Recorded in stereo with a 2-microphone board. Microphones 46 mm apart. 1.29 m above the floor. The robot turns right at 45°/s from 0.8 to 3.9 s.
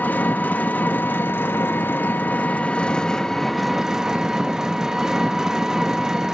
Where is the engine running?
55° left, 0.8 m; by 6.3 s 165° right, 0.8 m.